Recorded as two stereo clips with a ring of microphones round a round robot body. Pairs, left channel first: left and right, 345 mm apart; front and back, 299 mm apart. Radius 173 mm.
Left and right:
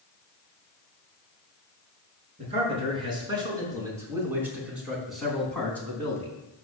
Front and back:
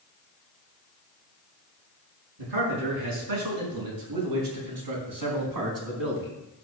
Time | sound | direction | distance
2.4 | a man speaking | 165° right | 5.5 m